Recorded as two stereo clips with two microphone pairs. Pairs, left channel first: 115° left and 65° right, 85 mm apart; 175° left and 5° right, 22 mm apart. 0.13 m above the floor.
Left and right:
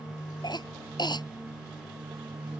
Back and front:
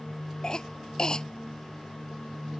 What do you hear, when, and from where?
0.4 s a cough: 125° left